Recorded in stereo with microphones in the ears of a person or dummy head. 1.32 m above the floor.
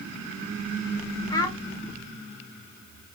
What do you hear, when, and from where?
1.3 s a child speaking: 20° left (ahead or behind), 0.7 m